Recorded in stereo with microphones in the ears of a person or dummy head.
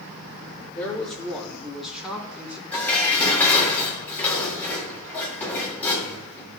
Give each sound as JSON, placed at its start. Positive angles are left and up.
{"t": 0.8, "sound": "a man speaking", "side_deg": 10, "distance_m": 4.5}
{"t": 2.7, "sound": "dishes clattering", "side_deg": 15, "distance_m": 3.5}